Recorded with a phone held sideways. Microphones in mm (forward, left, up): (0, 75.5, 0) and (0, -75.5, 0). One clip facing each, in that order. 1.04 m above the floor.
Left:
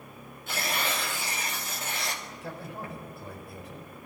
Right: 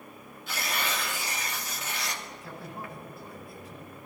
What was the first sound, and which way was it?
Tearing paper, 50° left (ahead or behind).